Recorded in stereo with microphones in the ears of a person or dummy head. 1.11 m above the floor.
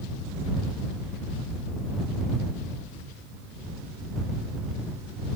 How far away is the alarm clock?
No alarm clock in this recording.